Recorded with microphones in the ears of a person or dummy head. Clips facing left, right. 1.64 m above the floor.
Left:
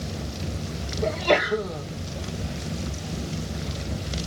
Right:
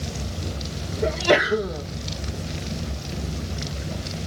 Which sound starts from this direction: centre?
A sneeze, at 1.0 s.